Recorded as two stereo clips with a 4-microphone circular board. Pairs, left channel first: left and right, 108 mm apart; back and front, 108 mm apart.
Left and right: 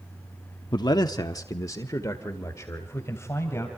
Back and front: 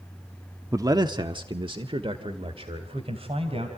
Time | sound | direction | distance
0.7 | a man speaking | 55° left | 1.0 m